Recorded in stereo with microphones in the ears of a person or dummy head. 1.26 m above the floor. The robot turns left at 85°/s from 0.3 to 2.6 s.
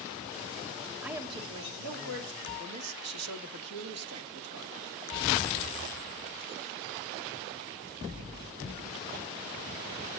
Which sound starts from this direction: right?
A man speaking, at 2.6 s.